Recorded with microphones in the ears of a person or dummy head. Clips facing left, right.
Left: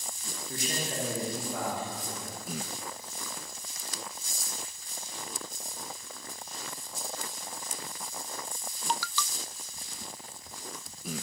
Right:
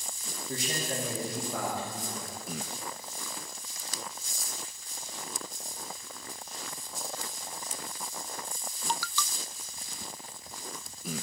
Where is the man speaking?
70° right (ahead or behind), 2 m.